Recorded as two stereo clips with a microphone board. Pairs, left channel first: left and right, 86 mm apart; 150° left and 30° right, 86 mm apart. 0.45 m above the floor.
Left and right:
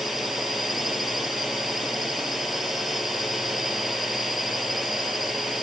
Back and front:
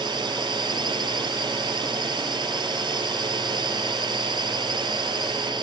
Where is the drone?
Straight ahead.